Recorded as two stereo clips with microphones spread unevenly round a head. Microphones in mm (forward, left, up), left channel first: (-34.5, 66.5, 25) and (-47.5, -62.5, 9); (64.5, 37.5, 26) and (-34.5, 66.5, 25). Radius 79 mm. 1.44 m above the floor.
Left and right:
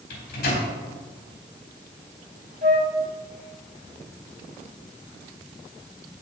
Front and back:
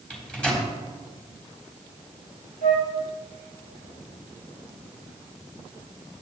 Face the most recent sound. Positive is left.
turn(degrees=-40)